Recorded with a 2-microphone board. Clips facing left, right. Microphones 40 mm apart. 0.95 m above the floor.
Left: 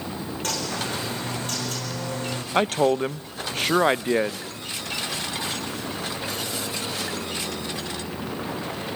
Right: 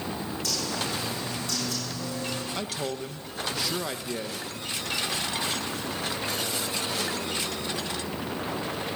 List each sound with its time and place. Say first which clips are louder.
0.4 s a bird: left 3 dB; 45° left (ahead or behind), 4.5 m
2.5 s a man speaking: left 11 dB; 45° left (ahead or behind), 0.5 m